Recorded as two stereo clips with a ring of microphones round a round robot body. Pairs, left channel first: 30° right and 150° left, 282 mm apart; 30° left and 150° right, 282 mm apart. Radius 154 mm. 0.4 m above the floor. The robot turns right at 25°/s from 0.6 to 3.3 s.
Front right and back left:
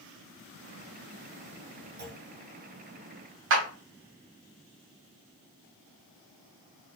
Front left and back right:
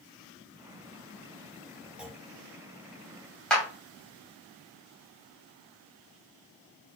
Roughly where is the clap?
Behind left.